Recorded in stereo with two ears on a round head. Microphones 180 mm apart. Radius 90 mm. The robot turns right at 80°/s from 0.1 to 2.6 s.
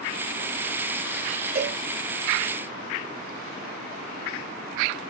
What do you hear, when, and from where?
1.6 s a cowbell: 45° right (ahead or behind), 2 m; by 1.8 s 30° right (ahead or behind), 2 m